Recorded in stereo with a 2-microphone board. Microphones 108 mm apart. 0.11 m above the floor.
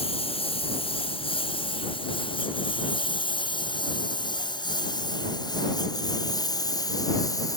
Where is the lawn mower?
60° left (ahead or behind); by 7.6 s 35° left (ahead or behind).